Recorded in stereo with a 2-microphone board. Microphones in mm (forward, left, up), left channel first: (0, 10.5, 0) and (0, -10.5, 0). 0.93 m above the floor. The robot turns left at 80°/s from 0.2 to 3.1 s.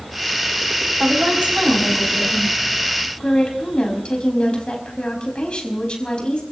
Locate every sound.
1.0 s a woman speaking: 60° right, 5.5 m; by 6.4 s 135° left, 5.5 m